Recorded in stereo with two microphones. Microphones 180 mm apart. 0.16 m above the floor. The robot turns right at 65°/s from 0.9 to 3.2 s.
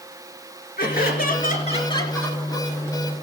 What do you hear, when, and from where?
0.8 s laughter: 80° left, 2.5 m; by 2.7 s 165° right, 2.5 m